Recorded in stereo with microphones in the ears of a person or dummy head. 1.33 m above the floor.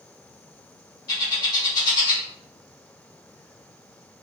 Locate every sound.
1.1 s a bird: 25° left (ahead or behind), 1.5 m